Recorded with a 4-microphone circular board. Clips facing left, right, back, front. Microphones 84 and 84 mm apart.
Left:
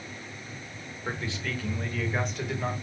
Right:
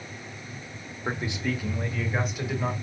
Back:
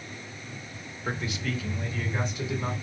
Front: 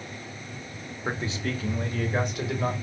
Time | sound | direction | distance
1.1 | a man speaking | 45° right | 0.9 m